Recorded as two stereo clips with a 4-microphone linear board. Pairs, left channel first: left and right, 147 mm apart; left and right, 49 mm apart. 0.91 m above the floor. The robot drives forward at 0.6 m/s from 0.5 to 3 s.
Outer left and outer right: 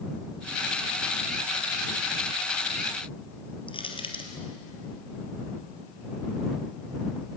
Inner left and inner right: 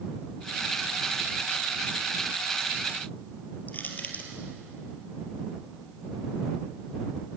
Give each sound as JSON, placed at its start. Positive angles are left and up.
{"t": 3.7, "sound": "crushing", "side_deg": 35, "distance_m": 3.5}